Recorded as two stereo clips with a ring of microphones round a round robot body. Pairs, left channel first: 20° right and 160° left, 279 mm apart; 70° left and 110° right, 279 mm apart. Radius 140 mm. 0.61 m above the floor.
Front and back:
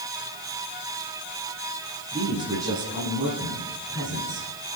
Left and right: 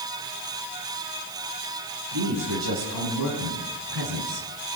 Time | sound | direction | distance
2.1 | a man speaking | 125° right | 7.5 m